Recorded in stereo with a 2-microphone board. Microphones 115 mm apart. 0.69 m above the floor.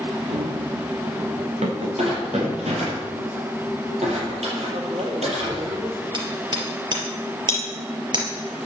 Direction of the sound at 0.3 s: 80° right.